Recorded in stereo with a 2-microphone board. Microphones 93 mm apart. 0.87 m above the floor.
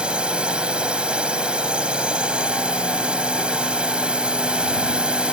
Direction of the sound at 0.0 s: 10° right (ahead or behind).